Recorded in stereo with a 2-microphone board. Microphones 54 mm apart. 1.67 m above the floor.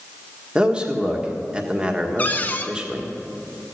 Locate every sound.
0.6 s a man speaking: 20° right (ahead or behind), 1.6 m
2.2 s a cupboard door: 25° left (ahead or behind), 0.8 m